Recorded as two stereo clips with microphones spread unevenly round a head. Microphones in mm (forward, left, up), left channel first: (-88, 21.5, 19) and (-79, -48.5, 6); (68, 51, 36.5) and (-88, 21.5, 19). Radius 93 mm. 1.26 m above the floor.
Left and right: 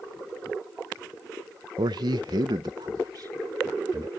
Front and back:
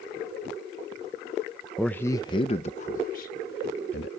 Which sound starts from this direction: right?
A man speaking, at 1.8 s.